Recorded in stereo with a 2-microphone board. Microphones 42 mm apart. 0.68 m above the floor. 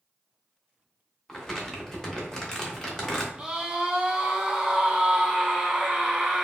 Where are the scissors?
No scissors in this recording.